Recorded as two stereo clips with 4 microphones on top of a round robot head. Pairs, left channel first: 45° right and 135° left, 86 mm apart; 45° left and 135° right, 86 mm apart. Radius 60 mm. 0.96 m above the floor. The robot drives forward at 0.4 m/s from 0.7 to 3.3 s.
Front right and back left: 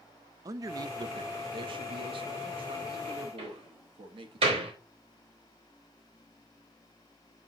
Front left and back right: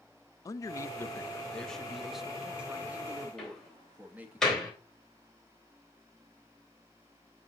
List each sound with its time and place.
0.5 s a man speaking: 90° left, 0.6 m; by 4.4 s 150° left, 1.2 m
3.4 s a door slam: 125° left, 3.5 m